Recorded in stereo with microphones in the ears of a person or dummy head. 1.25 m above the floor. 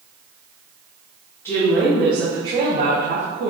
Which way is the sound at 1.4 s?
15° left (ahead or behind).